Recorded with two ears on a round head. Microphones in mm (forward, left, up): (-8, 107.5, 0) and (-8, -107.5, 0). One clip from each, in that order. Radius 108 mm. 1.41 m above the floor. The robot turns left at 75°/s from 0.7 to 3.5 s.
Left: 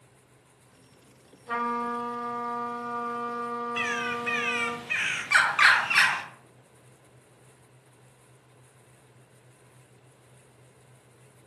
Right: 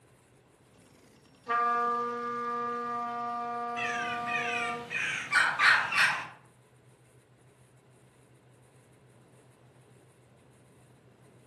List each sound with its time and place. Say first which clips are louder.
1.5 s a trumpet: right 2 dB; 95° right, 1.7 m; by 4.8 s 115° left, 1.7 m
3.8 s a bird: left 5 dB; 80° left, 0.6 m